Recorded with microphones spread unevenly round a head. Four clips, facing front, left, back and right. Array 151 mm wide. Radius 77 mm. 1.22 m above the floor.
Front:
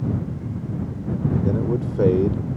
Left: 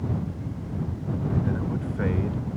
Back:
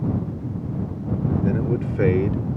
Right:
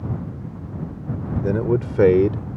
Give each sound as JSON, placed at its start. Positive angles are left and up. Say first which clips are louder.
{"t": 1.4, "sound": "a man speaking", "louder": "right 8 dB, even", "azimuth_deg": -90}